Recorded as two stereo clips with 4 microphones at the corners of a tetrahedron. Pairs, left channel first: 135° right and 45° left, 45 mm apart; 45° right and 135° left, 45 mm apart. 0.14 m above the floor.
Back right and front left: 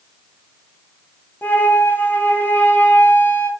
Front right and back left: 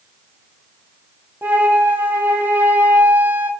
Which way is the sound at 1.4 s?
Straight behind.